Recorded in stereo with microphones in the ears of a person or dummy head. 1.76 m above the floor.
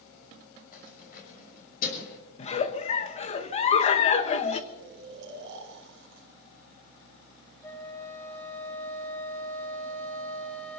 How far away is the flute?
About 2.5 m.